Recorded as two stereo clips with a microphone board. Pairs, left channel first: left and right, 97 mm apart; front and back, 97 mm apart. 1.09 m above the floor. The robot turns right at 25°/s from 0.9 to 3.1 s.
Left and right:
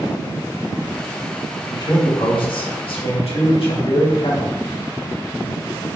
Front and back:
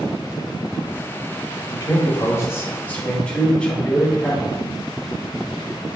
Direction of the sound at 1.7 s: 45° left.